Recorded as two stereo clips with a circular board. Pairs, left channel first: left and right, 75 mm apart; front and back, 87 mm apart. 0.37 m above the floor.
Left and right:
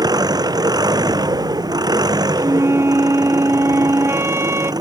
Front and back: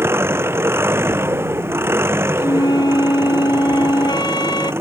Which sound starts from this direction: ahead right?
A flute, at 2.4 s.